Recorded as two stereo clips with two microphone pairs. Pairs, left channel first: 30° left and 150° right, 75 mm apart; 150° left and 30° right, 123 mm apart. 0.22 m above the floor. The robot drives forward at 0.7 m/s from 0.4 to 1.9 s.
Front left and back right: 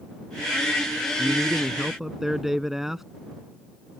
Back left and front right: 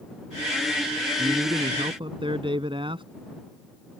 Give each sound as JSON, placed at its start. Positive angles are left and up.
{"t": 1.2, "sound": "a man speaking", "azimuth_deg": -50}